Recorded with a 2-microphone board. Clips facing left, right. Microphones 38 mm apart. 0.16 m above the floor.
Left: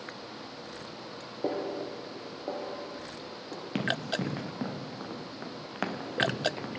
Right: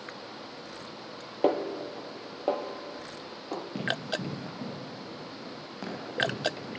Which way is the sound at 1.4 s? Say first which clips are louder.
Right 5 dB; 70° right (ahead or behind).